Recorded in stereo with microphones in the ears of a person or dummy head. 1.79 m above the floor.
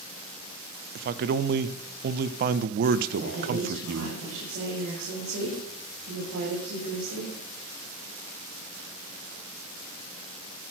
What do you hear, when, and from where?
0.9 s a man speaking: 55° right (ahead or behind), 0.6 m
3.2 s a woman speaking: 80° right, 6.5 m